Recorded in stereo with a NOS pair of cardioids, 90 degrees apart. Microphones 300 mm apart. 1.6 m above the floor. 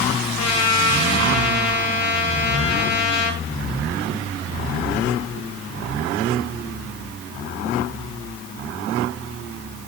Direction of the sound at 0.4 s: 65° left.